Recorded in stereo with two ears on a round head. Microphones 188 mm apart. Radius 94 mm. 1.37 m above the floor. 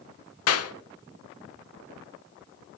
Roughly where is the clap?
Left.